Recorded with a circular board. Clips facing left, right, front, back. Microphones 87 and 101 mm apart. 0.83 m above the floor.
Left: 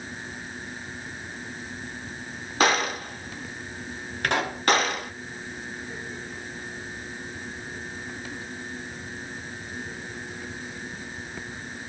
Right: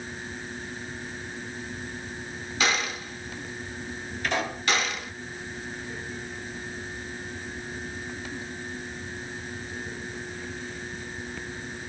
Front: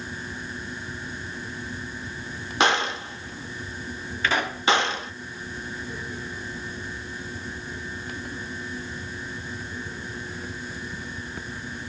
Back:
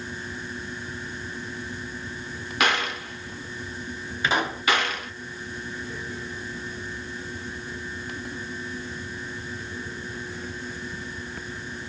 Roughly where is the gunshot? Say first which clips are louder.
Left 5 dB, front 3 dB; ahead left.